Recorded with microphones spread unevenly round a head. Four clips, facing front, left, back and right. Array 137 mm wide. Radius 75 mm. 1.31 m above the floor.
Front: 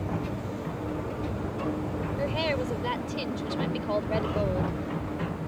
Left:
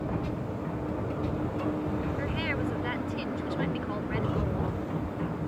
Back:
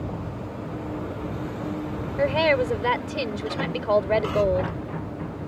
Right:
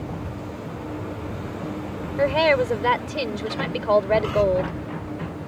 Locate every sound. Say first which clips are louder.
2.2 s a woman speaking: right 13 dB, back 9 dB; 120° right